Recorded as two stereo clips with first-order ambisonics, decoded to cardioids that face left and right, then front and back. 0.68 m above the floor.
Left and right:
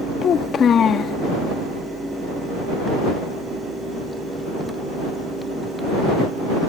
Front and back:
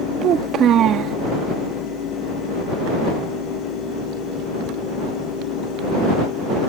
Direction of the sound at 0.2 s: 140° left.